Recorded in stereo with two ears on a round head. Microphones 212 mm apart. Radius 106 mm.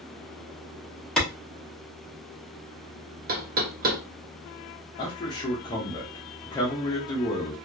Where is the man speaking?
15° left (ahead or behind), 0.7 m.